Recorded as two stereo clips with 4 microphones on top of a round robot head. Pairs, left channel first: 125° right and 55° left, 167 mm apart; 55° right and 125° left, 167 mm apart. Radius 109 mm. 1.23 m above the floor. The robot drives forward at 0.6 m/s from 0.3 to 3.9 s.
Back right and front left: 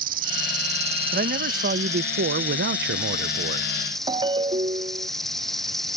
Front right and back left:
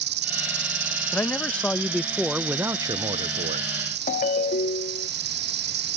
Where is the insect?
100° left; by 6.0 s 150° left.